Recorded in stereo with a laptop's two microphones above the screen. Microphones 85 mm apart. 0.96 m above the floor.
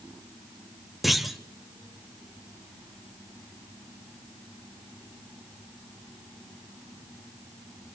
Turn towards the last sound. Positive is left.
turn(degrees=0)  # may be behind; listen again after turning